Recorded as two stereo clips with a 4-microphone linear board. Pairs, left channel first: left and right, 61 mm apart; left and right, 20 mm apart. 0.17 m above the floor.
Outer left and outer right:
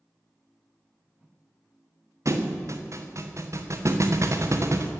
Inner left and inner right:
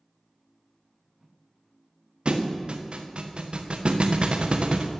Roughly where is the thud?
Right.